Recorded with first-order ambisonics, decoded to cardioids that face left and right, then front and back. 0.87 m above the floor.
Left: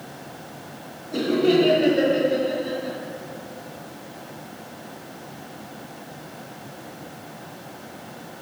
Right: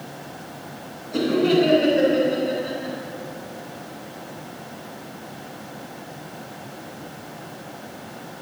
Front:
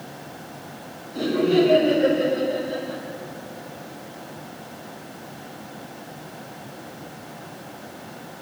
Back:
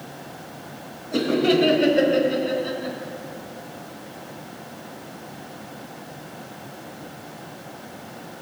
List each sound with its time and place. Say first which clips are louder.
1.1 s laughter: even, back 1 dB; 175° left, 4.5 m